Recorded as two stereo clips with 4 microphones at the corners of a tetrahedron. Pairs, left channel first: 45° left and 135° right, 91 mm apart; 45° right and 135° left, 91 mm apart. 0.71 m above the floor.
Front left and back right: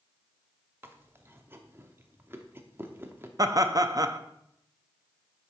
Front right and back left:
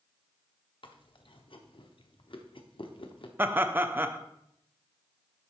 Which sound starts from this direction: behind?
Laughter, at 3.4 s.